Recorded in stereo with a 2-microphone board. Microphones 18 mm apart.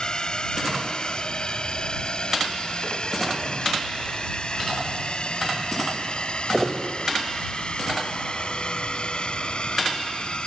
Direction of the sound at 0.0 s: 50° left (ahead or behind).